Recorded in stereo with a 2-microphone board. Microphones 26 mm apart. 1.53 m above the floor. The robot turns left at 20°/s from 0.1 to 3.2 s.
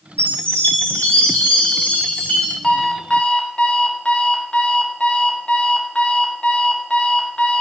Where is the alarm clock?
35° left (ahead or behind), 0.9 m; by 7.6 s 40° left (ahead or behind), 0.9 m.